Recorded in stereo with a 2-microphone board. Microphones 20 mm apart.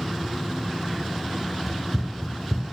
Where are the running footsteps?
5° left (ahead or behind), 0.6 m.